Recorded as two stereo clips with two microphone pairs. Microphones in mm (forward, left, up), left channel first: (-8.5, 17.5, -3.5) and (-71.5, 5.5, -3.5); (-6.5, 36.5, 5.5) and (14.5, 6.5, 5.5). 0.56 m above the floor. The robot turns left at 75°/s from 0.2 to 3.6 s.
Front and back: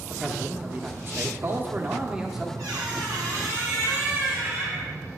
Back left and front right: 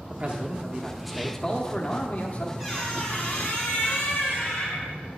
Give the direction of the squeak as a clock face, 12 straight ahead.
5 o'clock.